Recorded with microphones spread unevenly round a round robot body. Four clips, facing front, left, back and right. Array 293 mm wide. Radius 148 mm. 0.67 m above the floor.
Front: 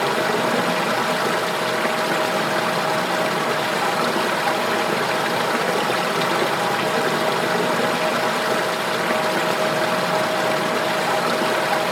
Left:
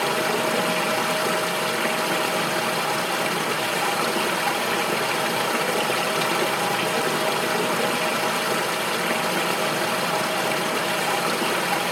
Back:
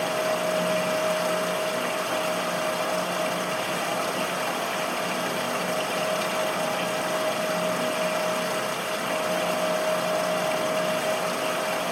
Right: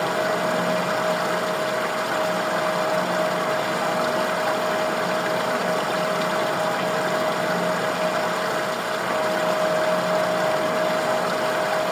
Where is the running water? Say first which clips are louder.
Right 1 dB, front 5 dB; 20° left, 1.0 m.